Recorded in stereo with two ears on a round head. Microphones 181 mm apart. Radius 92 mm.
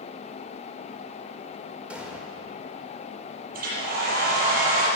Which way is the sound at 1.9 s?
5° right (ahead or behind).